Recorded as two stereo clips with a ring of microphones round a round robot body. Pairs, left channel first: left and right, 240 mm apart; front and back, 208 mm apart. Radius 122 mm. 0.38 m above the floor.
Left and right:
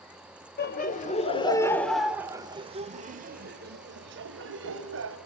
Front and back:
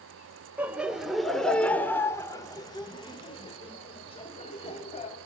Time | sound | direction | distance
0.6 | laughter | 100° left | 1.8 m